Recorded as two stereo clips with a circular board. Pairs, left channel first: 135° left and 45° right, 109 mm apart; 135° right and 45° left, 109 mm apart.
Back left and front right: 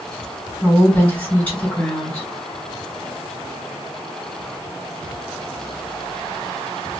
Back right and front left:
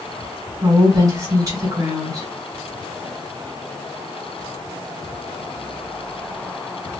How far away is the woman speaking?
About 1.6 m.